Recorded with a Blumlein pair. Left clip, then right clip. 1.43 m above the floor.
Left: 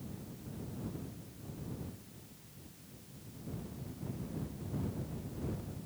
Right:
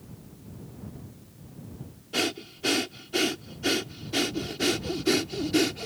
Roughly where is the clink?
I don't hear a clink.